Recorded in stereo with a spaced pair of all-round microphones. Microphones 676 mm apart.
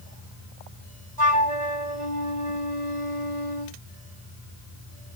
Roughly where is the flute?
Right.